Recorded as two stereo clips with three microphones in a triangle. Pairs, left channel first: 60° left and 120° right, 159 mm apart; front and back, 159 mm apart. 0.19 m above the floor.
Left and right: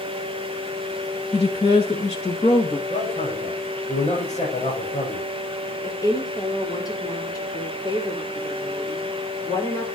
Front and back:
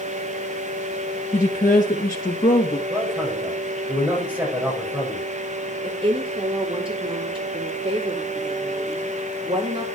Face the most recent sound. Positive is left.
turn(degrees=125)